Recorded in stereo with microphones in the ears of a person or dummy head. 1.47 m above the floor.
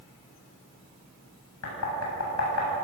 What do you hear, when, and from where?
1.6 s knocking: 85° left, 8.5 m